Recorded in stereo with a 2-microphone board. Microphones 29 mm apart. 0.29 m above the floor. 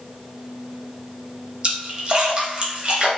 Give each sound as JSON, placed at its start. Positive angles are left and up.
{"t": 1.6, "sound": "a splash", "side_deg": -35, "distance_m": 0.9}